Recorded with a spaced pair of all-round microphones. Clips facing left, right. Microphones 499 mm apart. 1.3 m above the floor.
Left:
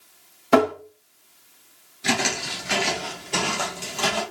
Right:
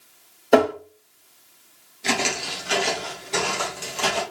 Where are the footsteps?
30° left (ahead or behind), 1.4 m; by 4.2 s 60° left (ahead or behind), 2.5 m.